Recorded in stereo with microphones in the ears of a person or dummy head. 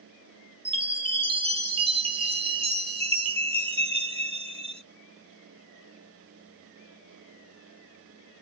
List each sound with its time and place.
0.7 s a chime: 25° right (ahead or behind), 0.5 m